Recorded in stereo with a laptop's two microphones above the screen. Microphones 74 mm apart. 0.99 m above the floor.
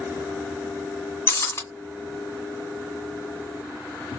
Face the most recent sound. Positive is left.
turn(degrees=30)  # may be behind; listen again after turning